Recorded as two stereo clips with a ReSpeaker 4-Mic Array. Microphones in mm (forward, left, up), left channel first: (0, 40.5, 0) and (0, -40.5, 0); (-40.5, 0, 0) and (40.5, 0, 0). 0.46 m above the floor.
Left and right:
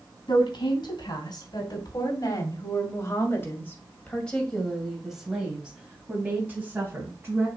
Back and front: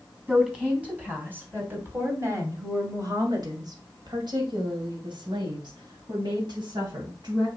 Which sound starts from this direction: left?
A woman speaking, at 0.3 s.